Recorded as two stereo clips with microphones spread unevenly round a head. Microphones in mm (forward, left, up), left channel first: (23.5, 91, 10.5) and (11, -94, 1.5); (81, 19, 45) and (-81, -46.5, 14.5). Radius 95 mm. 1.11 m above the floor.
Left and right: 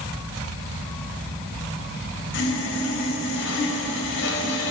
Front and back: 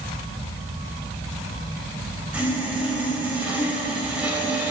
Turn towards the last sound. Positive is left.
turn(degrees=120)